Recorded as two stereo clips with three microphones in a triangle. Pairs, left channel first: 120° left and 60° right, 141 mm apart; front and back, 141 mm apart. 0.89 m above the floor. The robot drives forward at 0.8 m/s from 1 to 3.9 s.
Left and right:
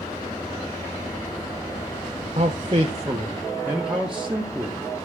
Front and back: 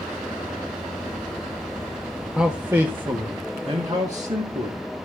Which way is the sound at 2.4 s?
100° right.